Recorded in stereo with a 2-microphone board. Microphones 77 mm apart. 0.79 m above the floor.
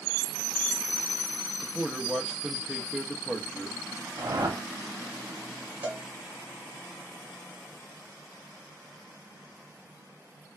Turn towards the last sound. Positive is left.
turn(degrees=-25)  # may be behind; listen again after turning